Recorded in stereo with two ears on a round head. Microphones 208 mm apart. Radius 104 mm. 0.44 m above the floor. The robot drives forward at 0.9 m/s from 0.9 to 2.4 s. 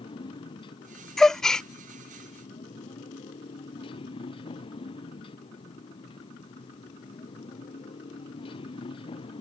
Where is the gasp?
5° left (ahead or behind).